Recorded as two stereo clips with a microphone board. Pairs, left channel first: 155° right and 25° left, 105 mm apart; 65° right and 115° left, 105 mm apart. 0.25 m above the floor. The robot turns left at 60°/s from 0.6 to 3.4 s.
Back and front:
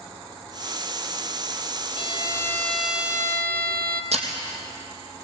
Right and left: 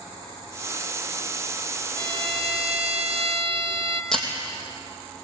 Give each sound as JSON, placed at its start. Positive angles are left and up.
{"t": 2.0, "sound": "a violin", "azimuth_deg": 165, "distance_m": 1.2}
{"t": 4.1, "sound": "breaking glass", "azimuth_deg": 20, "distance_m": 3.0}